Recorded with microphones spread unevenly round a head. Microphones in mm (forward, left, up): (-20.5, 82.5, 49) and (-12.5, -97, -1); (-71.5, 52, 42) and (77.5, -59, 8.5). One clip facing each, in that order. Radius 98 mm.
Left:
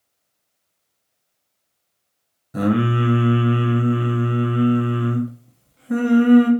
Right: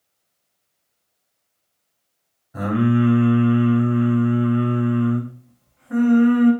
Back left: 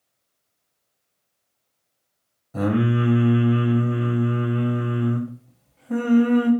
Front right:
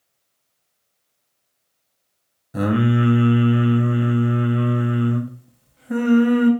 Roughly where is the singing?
Ahead left.